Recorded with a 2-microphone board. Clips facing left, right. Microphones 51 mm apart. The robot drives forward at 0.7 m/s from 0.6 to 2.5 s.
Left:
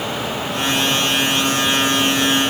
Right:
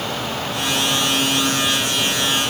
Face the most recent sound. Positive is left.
No sound to turn to.